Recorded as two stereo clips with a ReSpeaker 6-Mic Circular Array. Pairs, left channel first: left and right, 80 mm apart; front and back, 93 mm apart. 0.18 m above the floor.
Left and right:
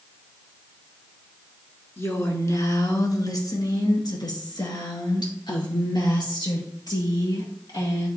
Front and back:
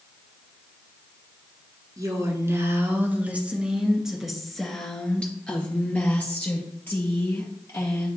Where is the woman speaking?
140° left, 1.9 m; by 8.1 s 60° left, 4 m.